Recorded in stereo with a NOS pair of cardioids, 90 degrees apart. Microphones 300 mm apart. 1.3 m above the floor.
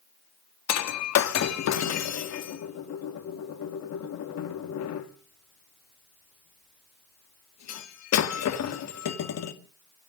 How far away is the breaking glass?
About 1.8 m.